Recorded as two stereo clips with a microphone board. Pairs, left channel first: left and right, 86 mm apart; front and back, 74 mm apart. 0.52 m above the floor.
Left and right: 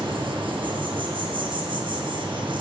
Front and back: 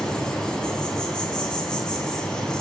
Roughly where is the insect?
Right.